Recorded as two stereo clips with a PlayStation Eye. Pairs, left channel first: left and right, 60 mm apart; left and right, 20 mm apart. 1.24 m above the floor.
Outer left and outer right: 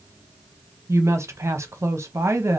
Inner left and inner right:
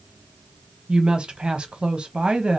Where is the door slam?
No door slam in this recording.